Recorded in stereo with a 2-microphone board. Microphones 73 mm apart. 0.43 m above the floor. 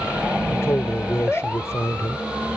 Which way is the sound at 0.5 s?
40° left (ahead or behind).